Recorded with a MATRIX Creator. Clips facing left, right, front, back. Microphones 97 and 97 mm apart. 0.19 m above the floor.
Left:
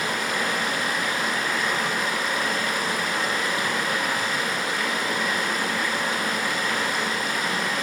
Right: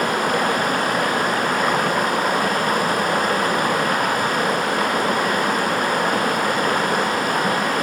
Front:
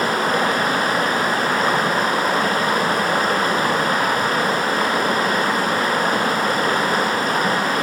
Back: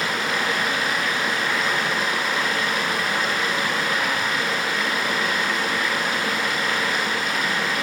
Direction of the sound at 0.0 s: 50° right.